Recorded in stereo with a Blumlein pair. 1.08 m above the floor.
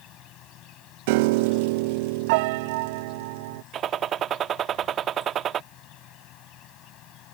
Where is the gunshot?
30° right.